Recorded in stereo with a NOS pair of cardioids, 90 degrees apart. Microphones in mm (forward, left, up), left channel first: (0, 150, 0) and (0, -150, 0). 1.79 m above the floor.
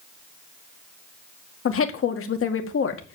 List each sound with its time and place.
1.6 s a woman speaking: 45° left, 2 m